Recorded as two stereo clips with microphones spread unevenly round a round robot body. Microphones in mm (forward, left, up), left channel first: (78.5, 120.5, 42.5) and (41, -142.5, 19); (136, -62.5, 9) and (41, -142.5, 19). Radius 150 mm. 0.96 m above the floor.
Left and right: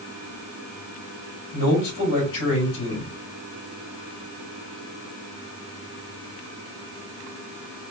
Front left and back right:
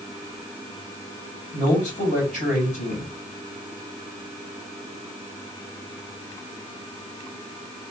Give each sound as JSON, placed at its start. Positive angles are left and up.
{"t": 1.5, "sound": "a man speaking", "azimuth_deg": 95, "distance_m": 3.0}